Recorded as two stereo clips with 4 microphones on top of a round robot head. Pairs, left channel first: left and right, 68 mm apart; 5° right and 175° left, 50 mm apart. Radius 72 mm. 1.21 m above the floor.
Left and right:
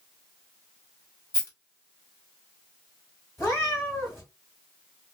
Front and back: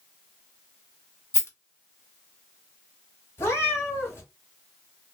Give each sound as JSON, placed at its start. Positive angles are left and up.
{"t": 1.3, "sound": "a rattle", "azimuth_deg": 35, "distance_m": 1.6}
{"t": 3.4, "sound": "a cat meowing", "azimuth_deg": 25, "distance_m": 1.5}